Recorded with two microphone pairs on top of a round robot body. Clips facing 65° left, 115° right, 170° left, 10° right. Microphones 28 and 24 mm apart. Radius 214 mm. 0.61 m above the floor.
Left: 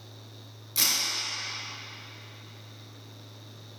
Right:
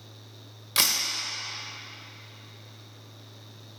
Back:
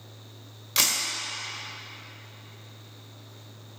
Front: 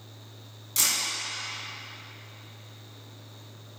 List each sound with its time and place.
0.8 s a camera shutter: 145° right, 1.3 m